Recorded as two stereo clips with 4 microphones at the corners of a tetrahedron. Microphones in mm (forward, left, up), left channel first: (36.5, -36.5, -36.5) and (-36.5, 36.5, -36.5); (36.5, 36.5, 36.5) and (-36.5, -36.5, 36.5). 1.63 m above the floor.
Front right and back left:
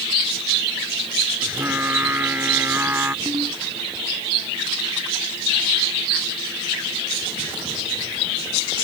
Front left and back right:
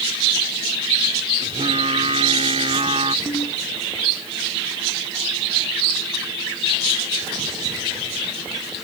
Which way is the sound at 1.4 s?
155° right.